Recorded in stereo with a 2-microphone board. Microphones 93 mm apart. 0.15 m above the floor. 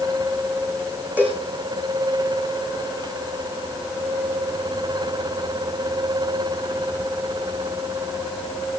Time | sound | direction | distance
1.2 | a cowbell | 20° right (ahead or behind) | 9.5 m